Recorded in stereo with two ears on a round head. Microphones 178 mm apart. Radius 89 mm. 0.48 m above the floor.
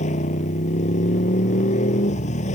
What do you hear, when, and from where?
0.0 s a motorcycle: 40° left (ahead or behind)